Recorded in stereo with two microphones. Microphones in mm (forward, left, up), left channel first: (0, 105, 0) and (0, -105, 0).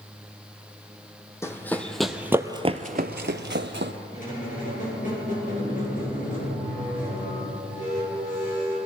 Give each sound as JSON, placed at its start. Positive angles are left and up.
{"t": 1.4, "sound": "running footsteps", "side_deg": 15, "distance_m": 1.1}
{"t": 4.1, "sound": "a squeak", "side_deg": 40, "distance_m": 4.0}